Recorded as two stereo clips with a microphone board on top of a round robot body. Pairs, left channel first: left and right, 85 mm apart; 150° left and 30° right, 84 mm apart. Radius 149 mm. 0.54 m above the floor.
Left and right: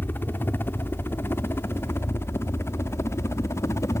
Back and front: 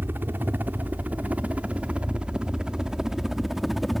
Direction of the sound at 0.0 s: 30° left.